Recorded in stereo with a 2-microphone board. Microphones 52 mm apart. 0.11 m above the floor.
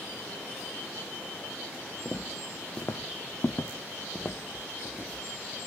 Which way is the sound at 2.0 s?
20° left (ahead or behind).